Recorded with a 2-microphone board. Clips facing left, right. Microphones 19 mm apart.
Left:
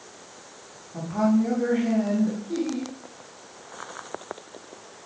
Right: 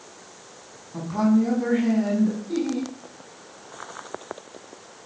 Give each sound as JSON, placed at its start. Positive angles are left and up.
{"t": 0.9, "sound": "a woman speaking", "side_deg": -45, "distance_m": 5.5}
{"t": 2.5, "sound": "laughter", "side_deg": -35, "distance_m": 4.0}